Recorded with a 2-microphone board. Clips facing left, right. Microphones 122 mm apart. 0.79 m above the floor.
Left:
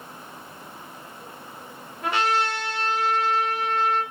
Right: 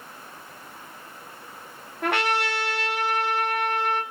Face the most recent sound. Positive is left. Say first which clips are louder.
# left 1 dB
turn(degrees=-65)  # may be behind; listen again after turning